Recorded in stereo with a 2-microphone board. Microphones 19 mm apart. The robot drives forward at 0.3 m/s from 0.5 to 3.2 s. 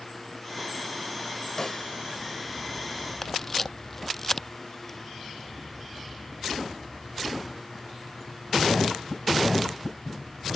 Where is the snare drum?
30° left (ahead or behind); by 1.9 s 35° left (ahead or behind).